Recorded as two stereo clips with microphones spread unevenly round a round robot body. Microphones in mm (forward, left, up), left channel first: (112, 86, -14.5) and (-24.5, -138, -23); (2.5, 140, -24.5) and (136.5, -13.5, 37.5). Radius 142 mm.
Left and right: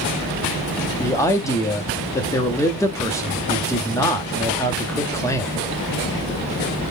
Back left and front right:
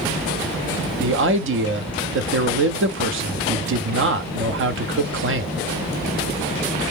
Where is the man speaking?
20° right, 0.7 m.